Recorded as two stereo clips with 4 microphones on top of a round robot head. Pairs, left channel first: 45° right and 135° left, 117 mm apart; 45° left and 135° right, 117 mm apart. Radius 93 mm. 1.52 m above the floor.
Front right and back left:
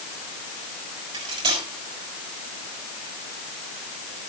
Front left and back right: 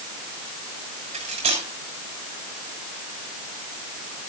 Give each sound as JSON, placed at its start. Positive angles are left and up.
{"t": 1.1, "sound": "cutlery clinking", "azimuth_deg": -175, "distance_m": 6.0}